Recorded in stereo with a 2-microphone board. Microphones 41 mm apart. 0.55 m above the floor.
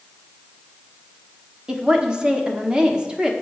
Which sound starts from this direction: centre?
A woman speaking, at 1.7 s.